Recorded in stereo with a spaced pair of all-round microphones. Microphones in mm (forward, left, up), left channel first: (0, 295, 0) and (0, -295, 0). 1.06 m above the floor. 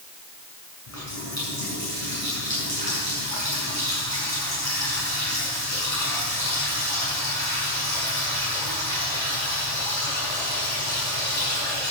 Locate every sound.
0.9 s a running tap: 65° left (ahead or behind), 7 m